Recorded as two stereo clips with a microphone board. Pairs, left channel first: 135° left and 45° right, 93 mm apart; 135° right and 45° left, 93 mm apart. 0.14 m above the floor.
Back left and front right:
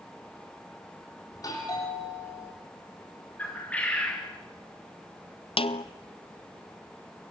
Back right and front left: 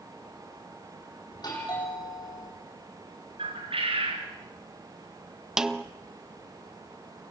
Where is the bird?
60° left, 5 m.